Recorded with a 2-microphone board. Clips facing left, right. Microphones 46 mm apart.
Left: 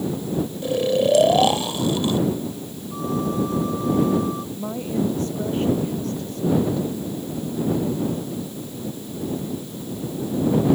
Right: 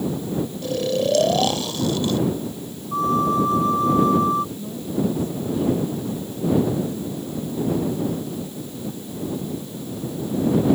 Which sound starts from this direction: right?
A flute, at 2.9 s.